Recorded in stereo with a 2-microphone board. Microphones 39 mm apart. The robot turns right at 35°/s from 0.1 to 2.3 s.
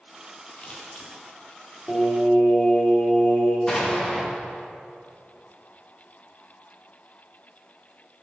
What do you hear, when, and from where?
0.6 s scissors: 30° left (ahead or behind), 3.5 m; by 1.1 s 45° left (ahead or behind), 3.5 m
1.9 s singing: 30° left (ahead or behind), 3 m; by 3.6 s 45° left (ahead or behind), 3 m
3.7 s an explosion: 15° left (ahead or behind), 2.5 m